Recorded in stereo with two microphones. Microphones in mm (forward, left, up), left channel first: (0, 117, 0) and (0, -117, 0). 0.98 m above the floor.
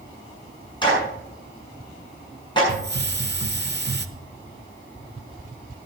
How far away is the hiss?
About 0.8 m.